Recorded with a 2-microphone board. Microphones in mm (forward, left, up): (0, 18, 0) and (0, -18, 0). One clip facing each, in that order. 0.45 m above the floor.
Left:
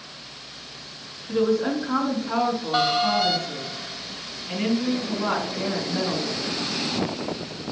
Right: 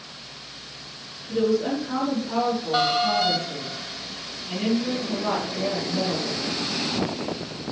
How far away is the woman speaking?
About 3.5 m.